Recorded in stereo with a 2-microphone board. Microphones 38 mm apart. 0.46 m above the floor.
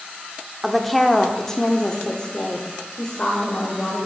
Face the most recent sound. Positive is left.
turn(degrees=30)  # may be behind; listen again after turning